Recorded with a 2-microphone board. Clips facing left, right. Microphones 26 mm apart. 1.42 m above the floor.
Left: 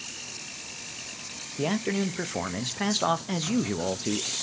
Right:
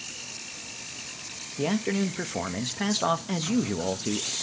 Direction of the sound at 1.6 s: 5° left (ahead or behind).